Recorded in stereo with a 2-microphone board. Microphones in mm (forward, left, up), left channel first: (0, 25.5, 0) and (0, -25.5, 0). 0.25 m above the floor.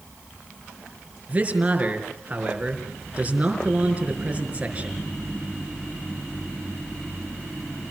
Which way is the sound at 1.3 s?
25° right (ahead or behind).